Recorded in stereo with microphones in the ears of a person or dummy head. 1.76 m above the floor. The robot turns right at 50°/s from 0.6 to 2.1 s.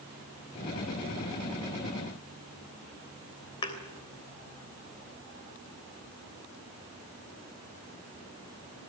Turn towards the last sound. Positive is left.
turn(degrees=30)  # may be behind; listen again after turning